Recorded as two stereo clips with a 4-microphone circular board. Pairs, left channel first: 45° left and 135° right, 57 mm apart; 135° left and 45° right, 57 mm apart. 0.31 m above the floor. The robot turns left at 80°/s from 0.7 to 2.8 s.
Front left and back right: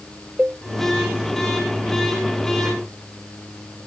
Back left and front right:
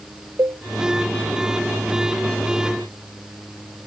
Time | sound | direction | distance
0.4 | a cowbell | 60° right | ?